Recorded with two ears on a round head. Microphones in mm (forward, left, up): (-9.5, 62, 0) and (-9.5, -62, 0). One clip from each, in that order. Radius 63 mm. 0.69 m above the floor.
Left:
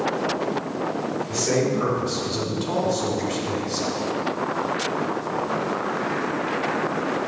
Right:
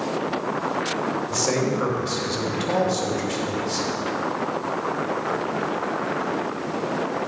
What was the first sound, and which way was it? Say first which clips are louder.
A man speaking: left 2 dB; 65° right (ahead or behind).